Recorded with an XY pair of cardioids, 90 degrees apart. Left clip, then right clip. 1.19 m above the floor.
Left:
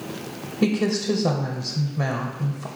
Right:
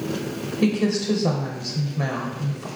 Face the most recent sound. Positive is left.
turn(degrees=15)